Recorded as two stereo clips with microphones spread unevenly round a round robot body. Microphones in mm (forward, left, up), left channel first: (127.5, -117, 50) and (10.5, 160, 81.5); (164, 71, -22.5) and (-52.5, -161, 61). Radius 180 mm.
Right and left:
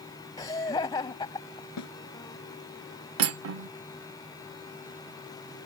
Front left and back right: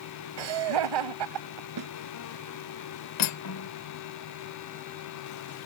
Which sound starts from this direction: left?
Cutlery clinking, at 3.2 s.